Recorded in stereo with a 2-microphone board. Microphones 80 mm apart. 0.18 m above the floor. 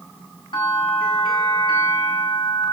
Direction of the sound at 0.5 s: 80° left.